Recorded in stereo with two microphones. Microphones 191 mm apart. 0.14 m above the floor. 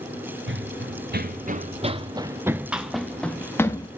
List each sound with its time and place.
0.5 s running footsteps: 70° right (ahead or behind), 1.1 m; by 3.9 s 15° left (ahead or behind), 1.4 m